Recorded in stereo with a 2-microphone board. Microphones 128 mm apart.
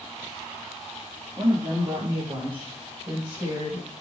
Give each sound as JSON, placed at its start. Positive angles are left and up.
{"t": 1.4, "sound": "a woman speaking", "side_deg": -50, "distance_m": 3.5}